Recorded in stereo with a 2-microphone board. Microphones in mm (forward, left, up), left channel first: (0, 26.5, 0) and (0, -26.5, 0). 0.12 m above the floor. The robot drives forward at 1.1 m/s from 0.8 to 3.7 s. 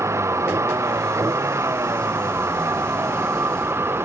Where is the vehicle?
70° right (ahead or behind); by 4.0 s 55° right (ahead or behind).